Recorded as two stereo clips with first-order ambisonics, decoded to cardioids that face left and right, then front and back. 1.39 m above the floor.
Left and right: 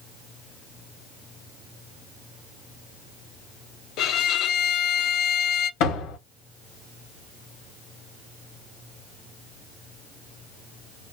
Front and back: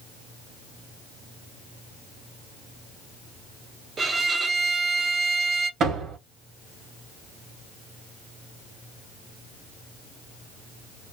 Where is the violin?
115° left, 0.6 m.